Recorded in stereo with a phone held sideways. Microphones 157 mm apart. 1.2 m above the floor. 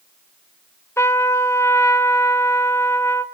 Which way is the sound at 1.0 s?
15° left (ahead or behind).